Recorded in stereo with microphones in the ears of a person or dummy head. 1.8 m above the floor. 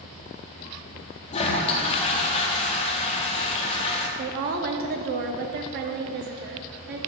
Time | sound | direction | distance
1.3 | a toilet flushing | 30° left (ahead or behind) | 0.9 m
4.2 | a woman speaking | 55° right (ahead or behind) | 0.7 m